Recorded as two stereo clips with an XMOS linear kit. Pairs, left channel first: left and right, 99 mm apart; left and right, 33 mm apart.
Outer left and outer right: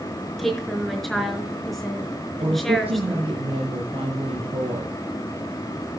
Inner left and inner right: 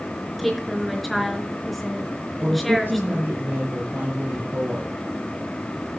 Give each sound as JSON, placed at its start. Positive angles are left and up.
{"t": 0.4, "sound": "a woman speaking", "side_deg": 0, "distance_m": 4.0}
{"t": 2.4, "sound": "a woman speaking", "side_deg": -70, "distance_m": 5.5}